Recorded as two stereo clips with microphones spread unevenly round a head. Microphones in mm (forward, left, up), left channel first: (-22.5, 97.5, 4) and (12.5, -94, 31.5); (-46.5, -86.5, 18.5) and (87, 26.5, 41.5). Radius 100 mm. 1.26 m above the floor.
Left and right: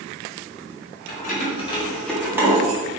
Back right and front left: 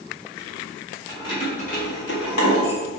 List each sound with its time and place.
1.1 s keys jangling: 145° left, 2.5 m; by 2.8 s 140° right, 2.0 m